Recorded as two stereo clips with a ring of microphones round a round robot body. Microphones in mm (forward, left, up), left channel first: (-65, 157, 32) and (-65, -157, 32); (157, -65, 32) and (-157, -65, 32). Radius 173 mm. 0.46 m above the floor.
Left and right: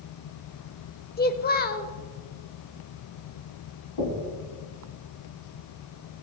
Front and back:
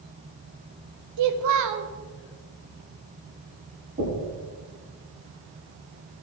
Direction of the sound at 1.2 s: 150° left.